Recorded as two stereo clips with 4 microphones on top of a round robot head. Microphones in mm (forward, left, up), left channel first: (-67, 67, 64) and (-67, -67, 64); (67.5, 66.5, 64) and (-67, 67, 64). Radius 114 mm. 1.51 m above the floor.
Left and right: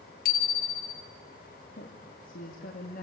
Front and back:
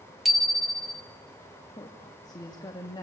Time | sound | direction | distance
0.2 | a bicycle bell | 90° left | 2.5 m
1.8 | a woman speaking | 60° left | 3 m